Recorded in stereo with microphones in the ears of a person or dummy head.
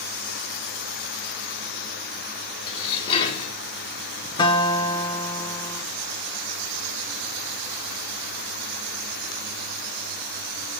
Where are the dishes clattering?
30° left (ahead or behind), 1.7 m.